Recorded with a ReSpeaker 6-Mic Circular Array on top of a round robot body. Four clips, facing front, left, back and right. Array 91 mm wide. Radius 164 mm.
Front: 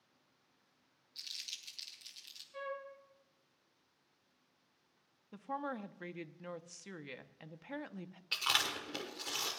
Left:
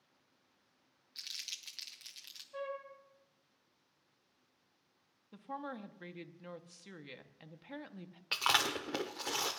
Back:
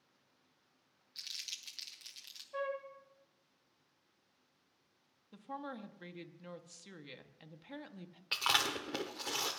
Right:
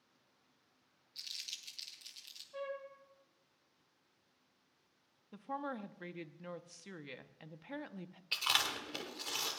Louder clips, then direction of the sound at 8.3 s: Left 5 dB, back 3 dB; 115° left.